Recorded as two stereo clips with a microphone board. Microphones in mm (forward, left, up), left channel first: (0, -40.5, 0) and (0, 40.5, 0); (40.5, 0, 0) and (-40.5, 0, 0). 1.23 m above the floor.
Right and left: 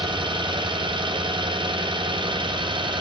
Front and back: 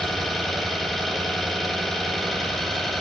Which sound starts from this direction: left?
An engine running, at 0.0 s.